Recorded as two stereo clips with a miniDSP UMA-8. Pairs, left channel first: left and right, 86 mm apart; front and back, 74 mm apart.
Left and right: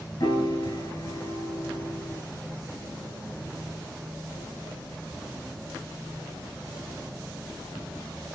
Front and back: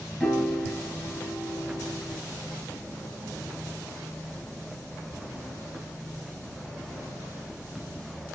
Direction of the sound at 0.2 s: 80° left.